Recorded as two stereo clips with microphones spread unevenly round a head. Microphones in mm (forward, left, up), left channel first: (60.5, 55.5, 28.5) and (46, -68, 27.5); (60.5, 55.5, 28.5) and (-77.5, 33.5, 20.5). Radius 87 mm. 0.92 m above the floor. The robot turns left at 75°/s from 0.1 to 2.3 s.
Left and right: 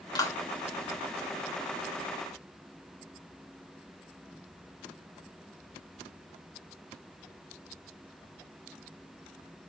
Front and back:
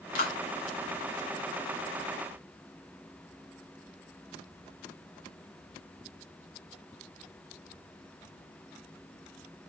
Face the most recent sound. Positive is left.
turn(degrees=-135)